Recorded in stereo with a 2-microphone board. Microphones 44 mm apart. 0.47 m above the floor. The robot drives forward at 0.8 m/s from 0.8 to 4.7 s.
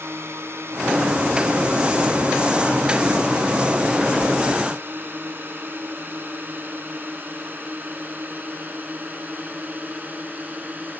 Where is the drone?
60° right (ahead or behind); by 11.0 s 35° right (ahead or behind).